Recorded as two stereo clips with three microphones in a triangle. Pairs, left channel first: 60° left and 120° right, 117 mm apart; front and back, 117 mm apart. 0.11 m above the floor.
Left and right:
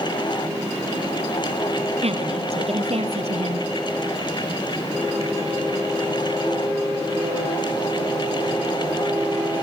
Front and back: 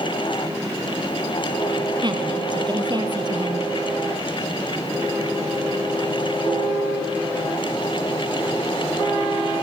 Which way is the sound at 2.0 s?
135° right.